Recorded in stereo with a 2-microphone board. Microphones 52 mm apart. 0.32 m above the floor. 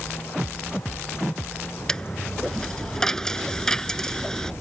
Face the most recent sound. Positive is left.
turn(degrees=10)  # may be behind; listen again after turning